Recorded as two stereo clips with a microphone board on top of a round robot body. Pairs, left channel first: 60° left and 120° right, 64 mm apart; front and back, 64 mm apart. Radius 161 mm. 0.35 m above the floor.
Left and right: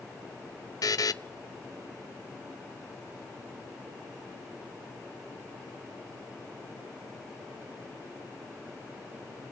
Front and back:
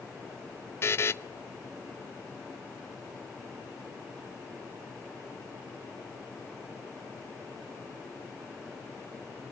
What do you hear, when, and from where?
0.8 s a buzzer: 50° left, 0.7 m